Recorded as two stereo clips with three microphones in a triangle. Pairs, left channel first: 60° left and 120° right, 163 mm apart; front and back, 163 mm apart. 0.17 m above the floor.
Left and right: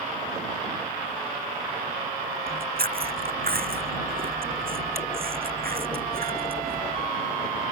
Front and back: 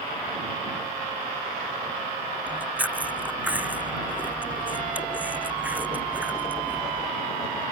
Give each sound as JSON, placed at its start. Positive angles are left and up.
{"t": 2.5, "sound": "chewing", "azimuth_deg": -100}